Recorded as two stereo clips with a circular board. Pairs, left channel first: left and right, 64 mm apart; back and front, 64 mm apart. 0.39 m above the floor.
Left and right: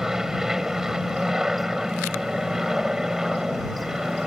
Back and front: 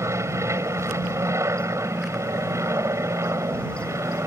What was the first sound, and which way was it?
An aircraft, 10° right.